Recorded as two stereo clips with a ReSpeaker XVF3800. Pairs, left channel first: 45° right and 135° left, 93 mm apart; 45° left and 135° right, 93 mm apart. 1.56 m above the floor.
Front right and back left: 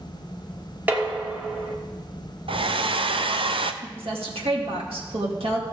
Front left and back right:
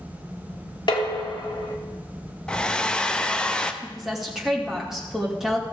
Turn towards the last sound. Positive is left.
turn(degrees=140)